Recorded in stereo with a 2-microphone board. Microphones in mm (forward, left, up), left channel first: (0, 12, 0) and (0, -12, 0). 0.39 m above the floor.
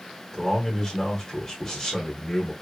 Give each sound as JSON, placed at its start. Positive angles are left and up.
{"t": 0.3, "sound": "a man speaking", "side_deg": 15, "distance_m": 1.2}